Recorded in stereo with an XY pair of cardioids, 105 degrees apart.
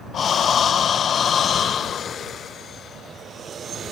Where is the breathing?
50° left.